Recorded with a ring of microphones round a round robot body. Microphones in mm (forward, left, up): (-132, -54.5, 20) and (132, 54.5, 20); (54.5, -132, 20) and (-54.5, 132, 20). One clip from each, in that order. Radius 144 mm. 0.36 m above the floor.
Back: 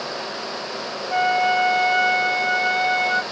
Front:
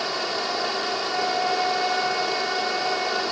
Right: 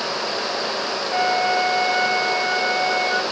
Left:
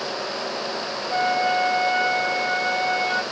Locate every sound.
1.1 s a flute: 150° right